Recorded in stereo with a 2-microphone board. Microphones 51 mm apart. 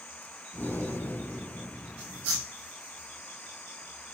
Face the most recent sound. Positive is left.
turn(degrees=45)  # may be behind; listen again after turning